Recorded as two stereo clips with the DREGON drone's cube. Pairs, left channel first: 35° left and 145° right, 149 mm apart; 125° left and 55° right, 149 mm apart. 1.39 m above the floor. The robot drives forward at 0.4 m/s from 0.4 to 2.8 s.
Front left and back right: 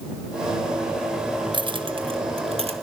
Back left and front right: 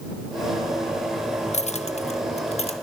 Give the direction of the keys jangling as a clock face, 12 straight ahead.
7 o'clock.